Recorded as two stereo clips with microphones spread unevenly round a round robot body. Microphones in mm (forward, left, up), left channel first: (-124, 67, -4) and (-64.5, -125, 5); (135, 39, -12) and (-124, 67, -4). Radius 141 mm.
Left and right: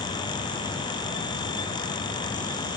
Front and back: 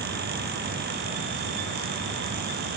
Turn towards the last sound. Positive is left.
No sound to turn to.